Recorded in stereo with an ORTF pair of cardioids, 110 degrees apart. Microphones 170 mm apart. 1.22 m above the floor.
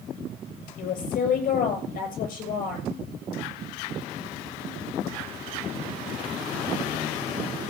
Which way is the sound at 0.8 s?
55° left.